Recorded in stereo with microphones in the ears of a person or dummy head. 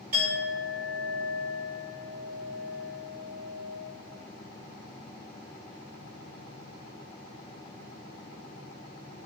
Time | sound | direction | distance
0.1 | a clink | 50° right (ahead or behind) | 2.5 m